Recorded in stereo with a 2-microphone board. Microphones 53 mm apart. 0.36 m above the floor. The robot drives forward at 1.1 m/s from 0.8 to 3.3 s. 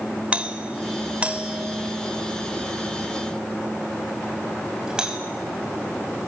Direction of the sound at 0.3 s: 25° right (ahead or behind).